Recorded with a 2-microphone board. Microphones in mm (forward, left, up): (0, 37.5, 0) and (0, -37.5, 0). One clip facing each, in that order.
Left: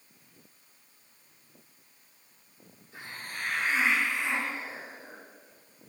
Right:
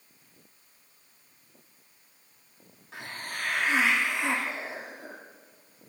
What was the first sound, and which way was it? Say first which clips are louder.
A hiss: right 3 dB; 80° right.